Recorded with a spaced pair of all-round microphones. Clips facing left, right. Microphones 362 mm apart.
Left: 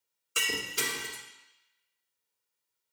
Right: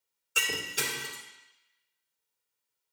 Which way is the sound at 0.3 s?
5° left (ahead or behind).